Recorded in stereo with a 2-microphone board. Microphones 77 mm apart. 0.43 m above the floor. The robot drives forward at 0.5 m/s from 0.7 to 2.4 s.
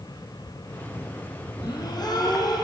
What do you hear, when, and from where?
1.6 s a gasp: 65° left (ahead or behind), 4 m; by 2.6 s 60° left (ahead or behind), 4 m